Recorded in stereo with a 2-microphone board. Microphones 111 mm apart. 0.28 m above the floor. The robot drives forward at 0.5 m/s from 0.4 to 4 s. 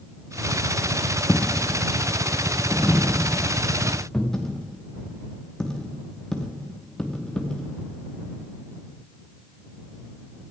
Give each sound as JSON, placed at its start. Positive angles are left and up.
{"t": 1.3, "sound": "a dropped coin", "side_deg": 15, "distance_m": 0.8}